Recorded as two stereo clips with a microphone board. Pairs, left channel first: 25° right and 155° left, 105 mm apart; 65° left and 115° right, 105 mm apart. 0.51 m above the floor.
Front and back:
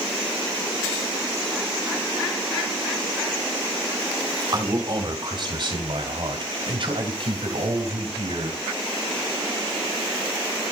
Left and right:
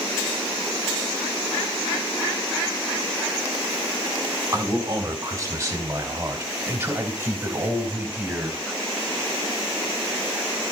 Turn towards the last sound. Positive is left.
turn(degrees=175)